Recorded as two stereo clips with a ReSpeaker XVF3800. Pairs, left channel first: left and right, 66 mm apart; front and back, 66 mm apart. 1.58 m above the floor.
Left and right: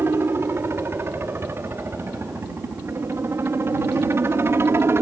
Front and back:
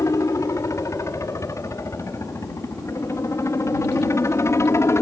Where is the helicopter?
35° right; by 5.0 s 40° right.